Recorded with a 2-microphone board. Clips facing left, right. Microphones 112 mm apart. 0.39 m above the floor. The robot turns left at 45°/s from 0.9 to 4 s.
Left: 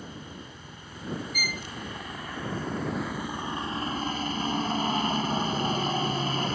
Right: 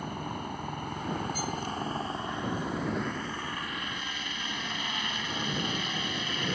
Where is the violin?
35° right (ahead or behind); by 1.6 s 25° right (ahead or behind).